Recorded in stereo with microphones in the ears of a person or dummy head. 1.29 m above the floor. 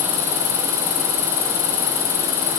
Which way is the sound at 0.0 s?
75° left (ahead or behind).